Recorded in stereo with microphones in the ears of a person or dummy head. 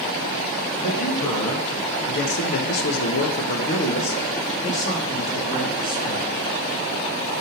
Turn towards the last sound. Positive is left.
turn(degrees=25)  # may be behind; listen again after turning